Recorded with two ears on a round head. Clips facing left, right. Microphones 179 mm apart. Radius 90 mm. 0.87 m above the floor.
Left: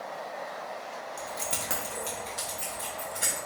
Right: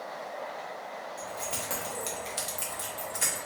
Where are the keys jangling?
40° left (ahead or behind), 1.2 m; by 3.4 s 70° right (ahead or behind), 1.9 m.